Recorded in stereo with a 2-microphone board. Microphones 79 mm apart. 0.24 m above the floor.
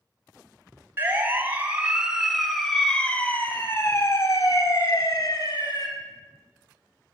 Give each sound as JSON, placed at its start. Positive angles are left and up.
{"t": 1.0, "sound": "a siren", "side_deg": -25, "distance_m": 2.5}